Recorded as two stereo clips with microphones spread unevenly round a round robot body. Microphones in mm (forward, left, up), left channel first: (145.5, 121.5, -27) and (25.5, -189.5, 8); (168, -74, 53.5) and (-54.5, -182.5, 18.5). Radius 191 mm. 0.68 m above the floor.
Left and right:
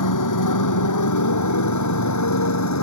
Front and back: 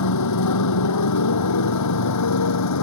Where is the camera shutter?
No camera shutter in this recording.